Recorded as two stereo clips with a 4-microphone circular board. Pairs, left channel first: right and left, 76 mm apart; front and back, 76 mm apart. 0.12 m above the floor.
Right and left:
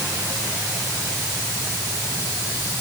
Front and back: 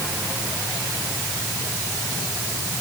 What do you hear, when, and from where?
Only background noise.